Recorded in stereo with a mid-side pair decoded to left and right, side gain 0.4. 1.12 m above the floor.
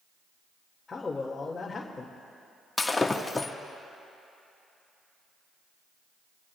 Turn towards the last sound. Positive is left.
turn(degrees=25)